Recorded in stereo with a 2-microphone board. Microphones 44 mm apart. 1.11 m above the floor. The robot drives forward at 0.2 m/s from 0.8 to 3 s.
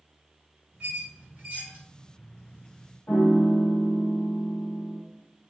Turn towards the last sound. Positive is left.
turn(degrees=70)  # may be behind; listen again after turning